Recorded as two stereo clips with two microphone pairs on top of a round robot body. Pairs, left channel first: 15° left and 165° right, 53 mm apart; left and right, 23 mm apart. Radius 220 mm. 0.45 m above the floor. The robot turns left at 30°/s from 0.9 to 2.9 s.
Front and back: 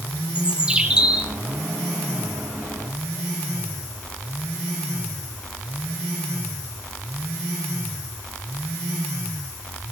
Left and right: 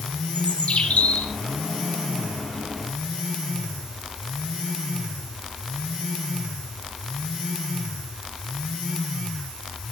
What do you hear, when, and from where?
0.3 s a bird: 120° left, 2.5 m; by 1.3 s 105° left, 2.5 m